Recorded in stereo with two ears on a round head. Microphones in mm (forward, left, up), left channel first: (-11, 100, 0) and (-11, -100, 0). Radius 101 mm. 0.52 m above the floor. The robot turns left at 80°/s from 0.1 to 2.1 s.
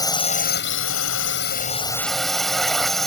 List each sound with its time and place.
0.0 s a drone: 160° left; by 3.1 s straight ahead